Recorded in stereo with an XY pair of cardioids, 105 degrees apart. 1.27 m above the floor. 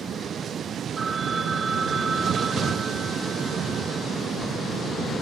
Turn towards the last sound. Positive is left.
turn(degrees=-45)